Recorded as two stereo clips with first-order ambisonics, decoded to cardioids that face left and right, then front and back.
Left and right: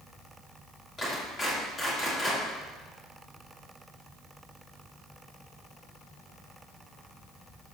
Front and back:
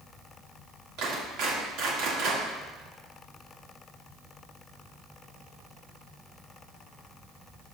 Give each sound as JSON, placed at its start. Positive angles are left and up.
{"t": 1.0, "sound": "a clap", "azimuth_deg": 160, "distance_m": 3.0}